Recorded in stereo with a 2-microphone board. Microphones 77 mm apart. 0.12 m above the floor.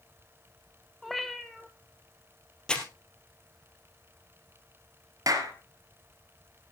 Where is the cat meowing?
Centre (ahead or behind), 1.1 m.